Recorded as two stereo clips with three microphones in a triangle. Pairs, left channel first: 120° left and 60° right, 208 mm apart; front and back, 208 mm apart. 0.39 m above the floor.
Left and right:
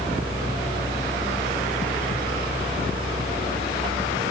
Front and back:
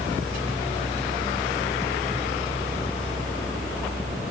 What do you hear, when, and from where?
Only background noise.